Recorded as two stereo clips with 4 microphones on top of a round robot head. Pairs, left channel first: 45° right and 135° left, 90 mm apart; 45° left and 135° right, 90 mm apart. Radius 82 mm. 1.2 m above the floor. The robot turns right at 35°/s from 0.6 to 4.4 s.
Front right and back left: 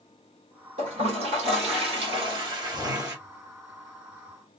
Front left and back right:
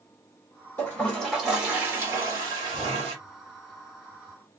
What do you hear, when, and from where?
0.8 s a toilet flushing: 115° left, 1.8 m; by 3.2 s 160° right, 1.8 m